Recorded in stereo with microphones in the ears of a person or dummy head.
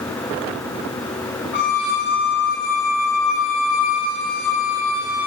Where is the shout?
I don't hear a shout.